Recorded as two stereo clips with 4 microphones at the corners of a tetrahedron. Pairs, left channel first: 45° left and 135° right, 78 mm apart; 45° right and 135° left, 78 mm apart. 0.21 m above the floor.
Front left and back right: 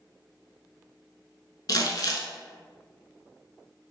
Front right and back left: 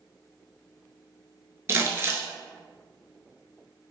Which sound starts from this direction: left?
Crumpling, at 1.7 s.